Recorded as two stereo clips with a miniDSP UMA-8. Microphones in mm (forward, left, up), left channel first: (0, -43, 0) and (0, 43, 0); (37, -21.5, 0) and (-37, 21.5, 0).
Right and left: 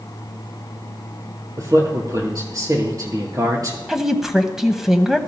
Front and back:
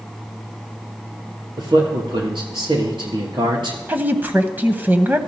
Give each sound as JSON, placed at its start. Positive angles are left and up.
{"t": 1.6, "sound": "a man speaking", "azimuth_deg": 135, "distance_m": 3.5}
{"t": 3.9, "sound": "a woman speaking", "azimuth_deg": 170, "distance_m": 1.0}